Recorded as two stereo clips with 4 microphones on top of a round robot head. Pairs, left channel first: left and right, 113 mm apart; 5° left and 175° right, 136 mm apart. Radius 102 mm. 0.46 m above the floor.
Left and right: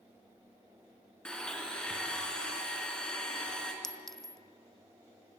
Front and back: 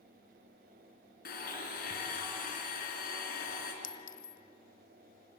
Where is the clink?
5° left, 0.8 m.